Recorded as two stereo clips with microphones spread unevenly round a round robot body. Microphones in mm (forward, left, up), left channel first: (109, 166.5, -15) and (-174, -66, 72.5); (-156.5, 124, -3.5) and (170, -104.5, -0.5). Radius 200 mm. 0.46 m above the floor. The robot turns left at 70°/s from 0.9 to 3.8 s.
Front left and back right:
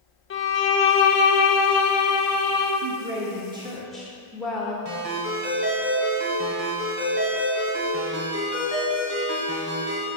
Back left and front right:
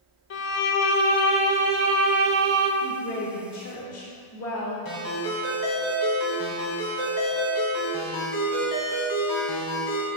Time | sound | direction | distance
0.3 | a violin | 85° left | 0.7 m
2.8 | a woman speaking | straight behind | 1.1 m
4.8 | a ringtone | 170° left | 2.5 m